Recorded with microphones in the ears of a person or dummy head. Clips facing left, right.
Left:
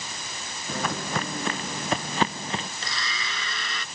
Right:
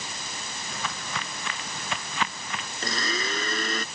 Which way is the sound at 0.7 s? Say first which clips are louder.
Left 8 dB; 45° left (ahead or behind).